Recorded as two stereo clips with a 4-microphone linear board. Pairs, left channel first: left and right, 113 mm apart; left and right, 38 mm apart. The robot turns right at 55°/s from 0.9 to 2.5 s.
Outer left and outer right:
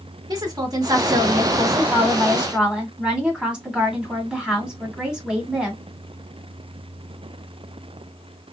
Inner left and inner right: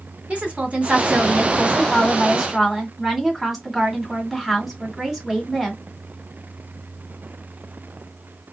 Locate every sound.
0.3 s a woman speaking: 100° right, 1.5 m; by 5.8 s 15° right, 1.5 m